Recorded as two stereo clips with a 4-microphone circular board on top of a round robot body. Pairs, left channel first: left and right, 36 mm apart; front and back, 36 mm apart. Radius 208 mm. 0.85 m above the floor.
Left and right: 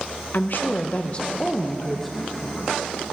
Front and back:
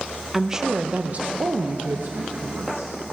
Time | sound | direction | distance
0.3 | a woman speaking | 100° left | 1.1 m